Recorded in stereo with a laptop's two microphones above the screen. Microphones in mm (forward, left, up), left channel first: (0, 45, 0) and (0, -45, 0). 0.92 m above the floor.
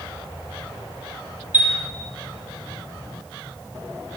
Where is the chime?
20° right (ahead or behind), 2 m.